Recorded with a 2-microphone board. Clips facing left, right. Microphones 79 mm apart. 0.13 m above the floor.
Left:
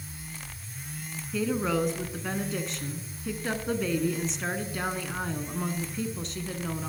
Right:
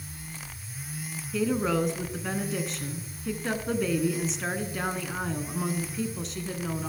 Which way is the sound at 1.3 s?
5° right (ahead or behind).